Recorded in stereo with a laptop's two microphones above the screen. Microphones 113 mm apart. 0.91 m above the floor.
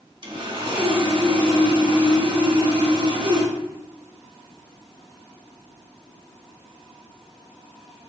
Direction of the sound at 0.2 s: 45° right (ahead or behind).